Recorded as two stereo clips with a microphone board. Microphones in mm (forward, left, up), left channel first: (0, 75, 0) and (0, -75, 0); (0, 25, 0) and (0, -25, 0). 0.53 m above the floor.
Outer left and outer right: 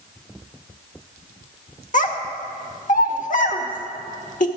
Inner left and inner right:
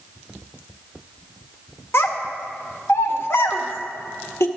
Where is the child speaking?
60° left (ahead or behind), 0.7 m.